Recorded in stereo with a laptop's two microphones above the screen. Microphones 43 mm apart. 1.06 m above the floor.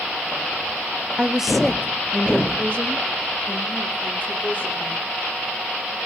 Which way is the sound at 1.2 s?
25° right (ahead or behind).